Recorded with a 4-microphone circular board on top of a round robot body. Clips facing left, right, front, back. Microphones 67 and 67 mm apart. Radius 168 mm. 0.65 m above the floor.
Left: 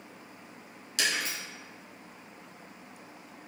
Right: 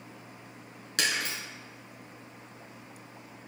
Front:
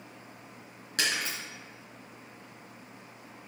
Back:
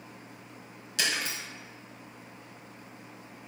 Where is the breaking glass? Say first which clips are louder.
Right 1 dB, even; 50° right, 3.5 m.